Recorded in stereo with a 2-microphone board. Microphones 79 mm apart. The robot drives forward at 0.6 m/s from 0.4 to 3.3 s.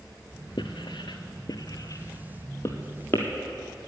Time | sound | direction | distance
0.6 | writing | 75° left (ahead or behind) | 0.8 m